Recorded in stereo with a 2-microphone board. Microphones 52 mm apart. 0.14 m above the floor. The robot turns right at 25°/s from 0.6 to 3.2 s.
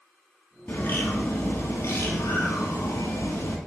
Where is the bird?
35° left, 2.5 m; by 3.6 s 100° left, 2.5 m.